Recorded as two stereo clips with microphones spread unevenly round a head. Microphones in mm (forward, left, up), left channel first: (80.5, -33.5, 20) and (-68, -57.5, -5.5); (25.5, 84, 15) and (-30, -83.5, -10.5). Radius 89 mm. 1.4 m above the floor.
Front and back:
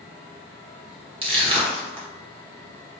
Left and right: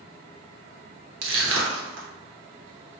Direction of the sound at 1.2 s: 115° right.